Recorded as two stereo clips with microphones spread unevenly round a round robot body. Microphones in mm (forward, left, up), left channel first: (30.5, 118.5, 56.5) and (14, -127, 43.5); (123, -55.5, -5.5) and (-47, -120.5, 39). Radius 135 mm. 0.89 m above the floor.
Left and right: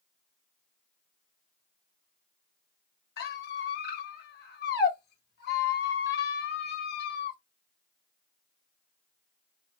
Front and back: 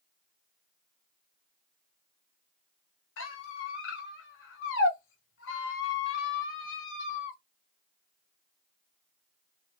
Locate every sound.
3.2 s a squeak: 35° left, 0.7 m